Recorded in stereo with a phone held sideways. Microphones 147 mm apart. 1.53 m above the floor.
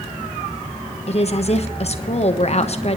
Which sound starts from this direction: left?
A woman speaking, at 1.1 s.